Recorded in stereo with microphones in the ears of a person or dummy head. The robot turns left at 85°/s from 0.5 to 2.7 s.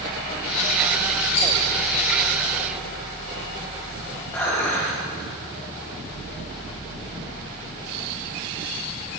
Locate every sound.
1.4 s a rattle: 30° left (ahead or behind), 2.5 m; by 1.5 s 20° left (ahead or behind), 2.5 m
4.3 s dishes clattering: 10° left (ahead or behind), 3 m